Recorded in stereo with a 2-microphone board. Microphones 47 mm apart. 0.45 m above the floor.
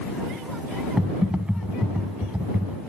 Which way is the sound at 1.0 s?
25° right (ahead or behind).